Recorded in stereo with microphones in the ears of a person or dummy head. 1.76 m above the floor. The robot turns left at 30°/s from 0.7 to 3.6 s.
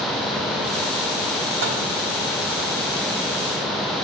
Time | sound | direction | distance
1.6 | a microwave | 55° right (ahead or behind) | 0.9 m